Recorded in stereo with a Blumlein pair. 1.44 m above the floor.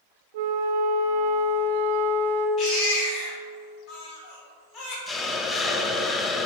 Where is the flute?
55° right, 0.9 m.